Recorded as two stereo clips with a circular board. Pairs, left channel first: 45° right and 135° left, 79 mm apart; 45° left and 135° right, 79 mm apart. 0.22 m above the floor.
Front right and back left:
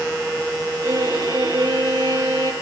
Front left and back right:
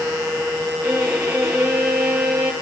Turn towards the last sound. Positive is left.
turn(degrees=155)